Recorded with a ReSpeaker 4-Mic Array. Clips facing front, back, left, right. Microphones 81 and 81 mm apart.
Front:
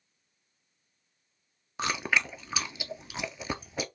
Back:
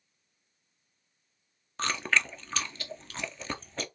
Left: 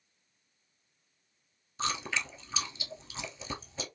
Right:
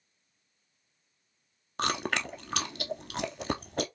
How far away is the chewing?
About 0.5 m.